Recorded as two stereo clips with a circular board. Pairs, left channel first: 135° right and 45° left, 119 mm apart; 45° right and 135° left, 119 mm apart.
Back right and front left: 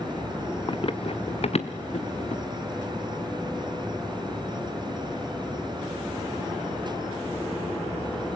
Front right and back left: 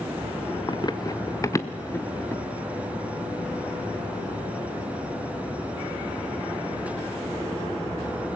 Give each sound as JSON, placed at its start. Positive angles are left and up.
{"t": 0.7, "sound": "running footsteps", "azimuth_deg": -95, "distance_m": 0.9}